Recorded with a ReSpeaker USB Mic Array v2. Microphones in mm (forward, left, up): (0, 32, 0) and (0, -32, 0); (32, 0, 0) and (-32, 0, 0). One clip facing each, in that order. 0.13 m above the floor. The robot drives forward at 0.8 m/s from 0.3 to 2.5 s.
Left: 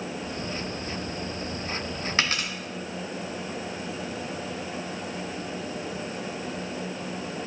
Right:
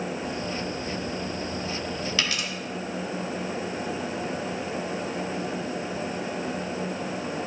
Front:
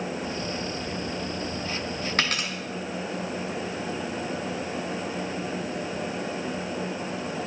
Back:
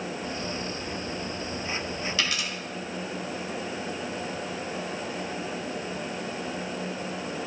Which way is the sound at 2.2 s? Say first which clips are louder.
Left 5 dB, front 4 dB; 40° left.